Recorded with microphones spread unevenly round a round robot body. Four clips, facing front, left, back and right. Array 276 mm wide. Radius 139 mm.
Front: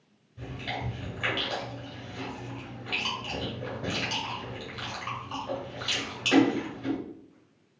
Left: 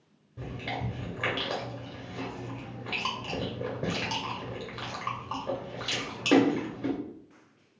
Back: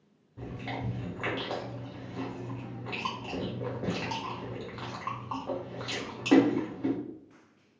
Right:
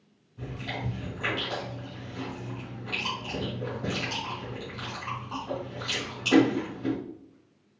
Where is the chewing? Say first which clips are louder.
Even, front 1 dB; 120° left, 1.4 m.